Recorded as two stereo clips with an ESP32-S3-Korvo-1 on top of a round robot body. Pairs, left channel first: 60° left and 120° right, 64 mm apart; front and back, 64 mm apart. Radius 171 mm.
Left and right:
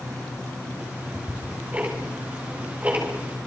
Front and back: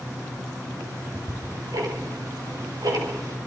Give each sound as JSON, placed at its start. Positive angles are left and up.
{"t": 0.8, "sound": "ticking", "azimuth_deg": 175, "distance_m": 5.0}